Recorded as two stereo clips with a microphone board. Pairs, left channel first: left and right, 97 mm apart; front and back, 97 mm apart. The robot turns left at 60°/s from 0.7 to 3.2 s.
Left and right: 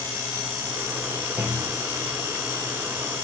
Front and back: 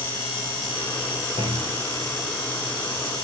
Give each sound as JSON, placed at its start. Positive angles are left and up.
{"t": 1.4, "sound": "a clunk", "azimuth_deg": -165, "distance_m": 5.0}